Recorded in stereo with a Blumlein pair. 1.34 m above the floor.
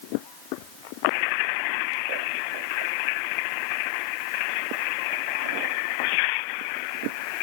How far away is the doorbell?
I don't hear a doorbell.